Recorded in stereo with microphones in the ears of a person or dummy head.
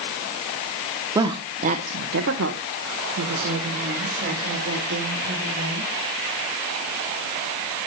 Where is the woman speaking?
20° right (ahead or behind), 1.0 m; by 5.9 s 60° right (ahead or behind), 3.5 m.